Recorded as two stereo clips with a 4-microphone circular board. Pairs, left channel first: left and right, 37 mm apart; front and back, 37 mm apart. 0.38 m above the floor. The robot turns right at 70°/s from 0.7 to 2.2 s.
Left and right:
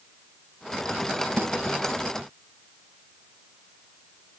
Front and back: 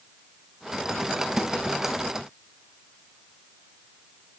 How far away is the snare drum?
About 1.2 m.